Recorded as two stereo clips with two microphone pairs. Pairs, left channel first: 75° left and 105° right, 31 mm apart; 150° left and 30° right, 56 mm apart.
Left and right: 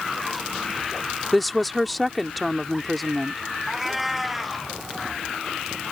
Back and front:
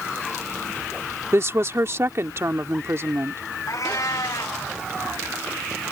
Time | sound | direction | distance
1.3 | a woman speaking | 10° right | ?
3.7 | a cat meowing | 170° left | ?